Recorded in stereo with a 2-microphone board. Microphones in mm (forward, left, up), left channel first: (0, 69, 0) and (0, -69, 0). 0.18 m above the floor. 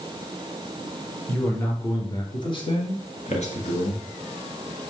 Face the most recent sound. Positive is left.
turn(degrees=65)  # may be behind; listen again after turning